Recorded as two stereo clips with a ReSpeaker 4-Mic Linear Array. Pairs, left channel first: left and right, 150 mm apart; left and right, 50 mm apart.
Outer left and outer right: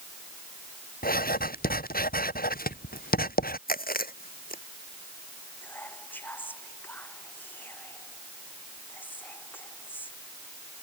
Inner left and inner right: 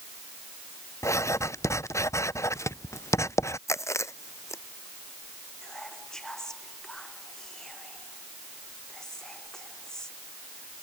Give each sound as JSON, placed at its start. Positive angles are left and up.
{"t": 1.0, "sound": "writing", "side_deg": 80}
{"t": 3.7, "sound": "chewing", "side_deg": 80}
{"t": 5.6, "sound": "whispering", "side_deg": 10}